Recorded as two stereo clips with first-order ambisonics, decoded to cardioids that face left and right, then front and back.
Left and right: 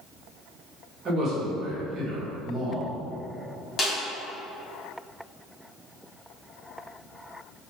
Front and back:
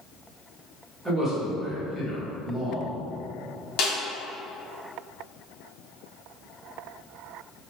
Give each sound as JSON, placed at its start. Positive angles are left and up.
{"t": 1.1, "sound": "a man speaking", "azimuth_deg": -95, "distance_m": 1.4}
{"t": 3.8, "sound": "a snare drum", "azimuth_deg": 20, "distance_m": 1.0}